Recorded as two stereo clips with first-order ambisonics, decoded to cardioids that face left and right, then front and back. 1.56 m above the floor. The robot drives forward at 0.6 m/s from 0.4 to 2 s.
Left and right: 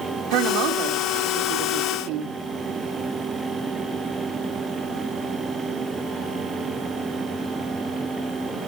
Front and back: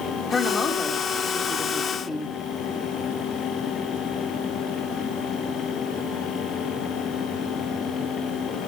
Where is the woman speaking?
70° right, 3.5 m; by 2.4 s 85° right, 3.5 m.